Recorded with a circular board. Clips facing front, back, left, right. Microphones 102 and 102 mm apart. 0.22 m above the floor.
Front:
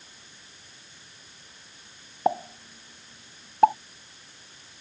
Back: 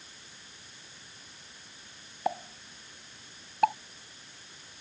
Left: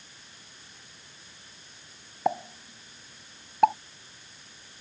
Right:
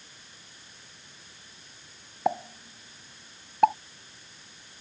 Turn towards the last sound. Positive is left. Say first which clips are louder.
# front 7 dB, even
turn(degrees=0)